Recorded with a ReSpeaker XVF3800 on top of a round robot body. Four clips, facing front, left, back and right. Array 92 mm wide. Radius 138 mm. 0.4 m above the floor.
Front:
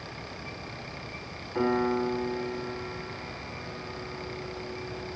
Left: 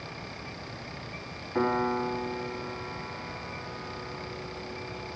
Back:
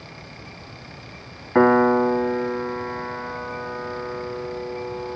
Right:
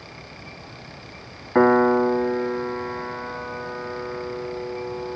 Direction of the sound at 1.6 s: 140° right.